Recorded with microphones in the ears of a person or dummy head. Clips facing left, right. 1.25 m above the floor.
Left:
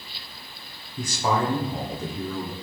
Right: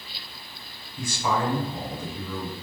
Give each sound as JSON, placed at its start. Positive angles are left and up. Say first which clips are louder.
{"t": 1.0, "sound": "a man speaking", "louder": "left 2 dB", "side_deg": 30, "distance_m": 0.6}